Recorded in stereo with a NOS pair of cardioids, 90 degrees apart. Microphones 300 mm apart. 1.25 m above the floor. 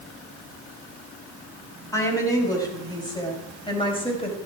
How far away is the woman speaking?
About 7.5 m.